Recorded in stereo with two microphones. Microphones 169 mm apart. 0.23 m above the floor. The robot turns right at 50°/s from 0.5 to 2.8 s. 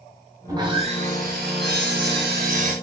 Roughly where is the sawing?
Behind.